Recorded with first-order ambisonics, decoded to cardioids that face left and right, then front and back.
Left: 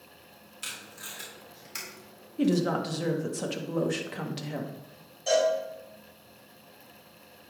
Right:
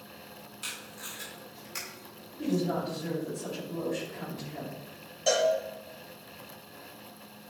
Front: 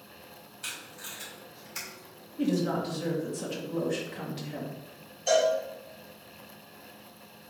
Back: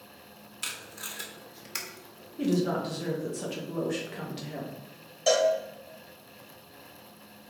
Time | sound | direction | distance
0.6 | tape being pulled | 170° left | 2 m
2.4 | a woman speaking | 100° left | 1.6 m
5.3 | a cowbell | 150° right | 2.5 m